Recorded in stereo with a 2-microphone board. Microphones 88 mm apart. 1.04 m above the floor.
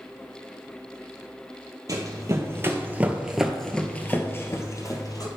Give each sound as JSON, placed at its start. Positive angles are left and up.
{"t": 1.9, "sound": "running footsteps", "side_deg": -40, "distance_m": 1.4}